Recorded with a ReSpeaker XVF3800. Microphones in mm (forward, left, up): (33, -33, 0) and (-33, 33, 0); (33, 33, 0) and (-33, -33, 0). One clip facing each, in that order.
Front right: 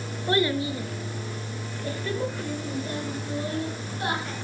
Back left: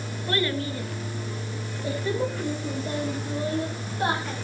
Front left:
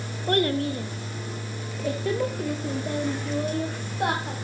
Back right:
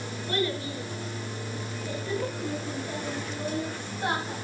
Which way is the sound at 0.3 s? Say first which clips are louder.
Front right 3 dB, front left 7 dB; 20° left.